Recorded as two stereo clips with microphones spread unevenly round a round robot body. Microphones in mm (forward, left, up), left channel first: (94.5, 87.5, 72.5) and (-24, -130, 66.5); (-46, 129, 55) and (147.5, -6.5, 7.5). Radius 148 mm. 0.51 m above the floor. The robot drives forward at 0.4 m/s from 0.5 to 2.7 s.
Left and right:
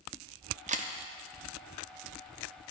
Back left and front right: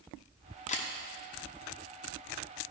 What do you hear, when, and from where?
0.7 s a camera shutter: 155° right, 0.7 m; by 0.9 s 160° right, 0.7 m